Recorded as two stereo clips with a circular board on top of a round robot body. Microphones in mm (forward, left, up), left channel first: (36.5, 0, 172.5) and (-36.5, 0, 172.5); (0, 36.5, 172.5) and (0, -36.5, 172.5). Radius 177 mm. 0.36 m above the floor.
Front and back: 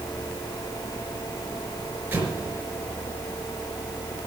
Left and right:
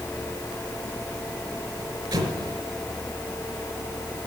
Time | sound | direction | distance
2.1 | an explosion | 115° right | 4.5 m